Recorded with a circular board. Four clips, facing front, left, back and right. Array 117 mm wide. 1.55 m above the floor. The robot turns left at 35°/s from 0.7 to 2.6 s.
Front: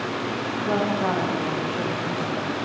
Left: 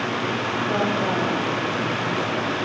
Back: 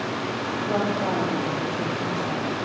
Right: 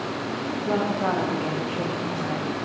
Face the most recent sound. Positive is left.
turn(degrees=-90)